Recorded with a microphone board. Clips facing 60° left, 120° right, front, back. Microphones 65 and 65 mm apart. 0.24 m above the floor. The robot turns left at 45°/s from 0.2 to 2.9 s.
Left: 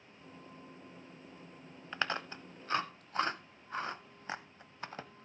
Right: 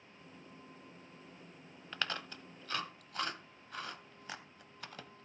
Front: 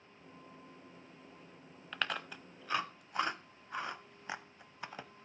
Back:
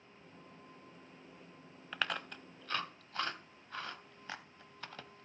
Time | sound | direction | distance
1.9 | chewing | 100° left | 0.7 m